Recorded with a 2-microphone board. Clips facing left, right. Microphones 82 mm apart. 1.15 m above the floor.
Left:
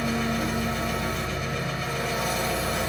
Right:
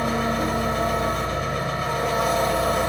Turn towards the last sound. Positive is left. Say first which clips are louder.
# right 4 dB
turn(degrees=-55)  # may be behind; listen again after turning